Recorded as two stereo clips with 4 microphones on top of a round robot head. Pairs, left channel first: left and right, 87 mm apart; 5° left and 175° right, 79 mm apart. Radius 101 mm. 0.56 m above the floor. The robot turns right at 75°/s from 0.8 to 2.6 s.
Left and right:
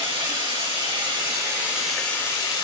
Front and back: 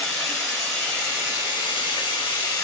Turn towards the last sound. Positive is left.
turn(degrees=55)